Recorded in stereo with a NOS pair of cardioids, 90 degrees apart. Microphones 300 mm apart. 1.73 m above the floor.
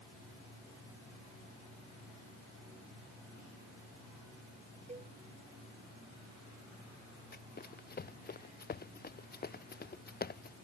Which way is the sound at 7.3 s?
30° left.